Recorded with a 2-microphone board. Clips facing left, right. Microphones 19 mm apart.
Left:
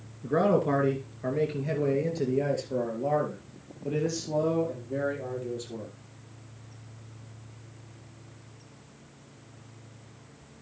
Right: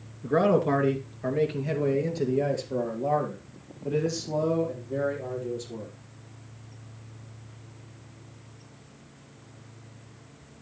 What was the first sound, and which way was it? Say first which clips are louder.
A man speaking: right 2 dB; 15° right (ahead or behind).